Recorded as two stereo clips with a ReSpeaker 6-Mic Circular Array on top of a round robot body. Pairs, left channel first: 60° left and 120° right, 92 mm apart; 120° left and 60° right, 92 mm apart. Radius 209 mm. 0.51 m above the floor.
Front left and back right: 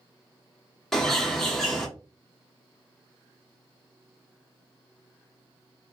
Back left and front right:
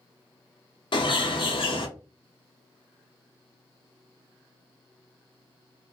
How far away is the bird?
About 0.8 m.